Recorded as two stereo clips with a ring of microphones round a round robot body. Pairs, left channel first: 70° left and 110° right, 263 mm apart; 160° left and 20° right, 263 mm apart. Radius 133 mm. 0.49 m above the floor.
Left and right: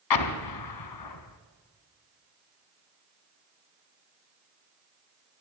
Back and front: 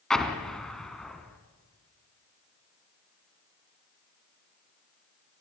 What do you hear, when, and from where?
0.1 s an explosion: 70° left, 1.7 m